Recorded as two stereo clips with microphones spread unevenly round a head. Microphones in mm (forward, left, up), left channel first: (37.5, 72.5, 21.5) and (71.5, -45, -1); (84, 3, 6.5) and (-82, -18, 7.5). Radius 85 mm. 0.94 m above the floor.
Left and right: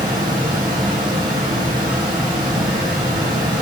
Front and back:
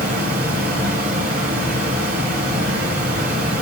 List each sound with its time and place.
0.0 s running water: 140° right, 1.5 m